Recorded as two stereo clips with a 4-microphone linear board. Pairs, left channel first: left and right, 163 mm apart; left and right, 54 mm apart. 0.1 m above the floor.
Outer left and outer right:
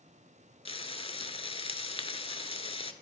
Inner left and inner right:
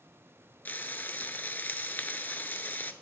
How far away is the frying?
About 0.6 m.